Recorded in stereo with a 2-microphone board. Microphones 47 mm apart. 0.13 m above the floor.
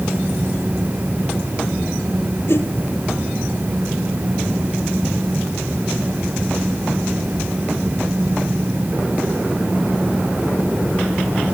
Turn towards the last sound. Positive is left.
turn(degrees=60)  # may be behind; listen again after turning